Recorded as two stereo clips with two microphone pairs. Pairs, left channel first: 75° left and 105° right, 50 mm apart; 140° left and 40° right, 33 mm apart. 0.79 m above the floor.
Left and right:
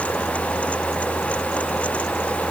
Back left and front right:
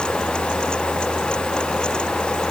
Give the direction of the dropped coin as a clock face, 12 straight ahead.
No dropped coin in this recording.